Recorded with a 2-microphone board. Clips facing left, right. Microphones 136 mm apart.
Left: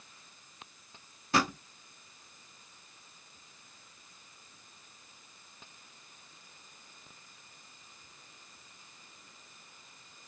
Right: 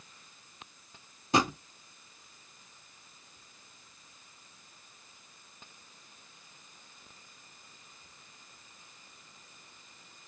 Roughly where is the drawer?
Centre.